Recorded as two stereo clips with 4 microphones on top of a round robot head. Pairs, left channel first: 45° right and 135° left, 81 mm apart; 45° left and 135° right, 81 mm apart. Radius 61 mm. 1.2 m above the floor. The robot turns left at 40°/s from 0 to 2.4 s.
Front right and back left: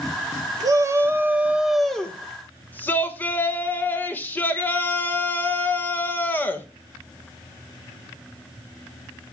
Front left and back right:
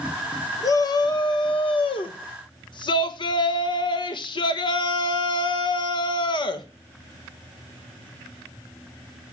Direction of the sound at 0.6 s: 95° left.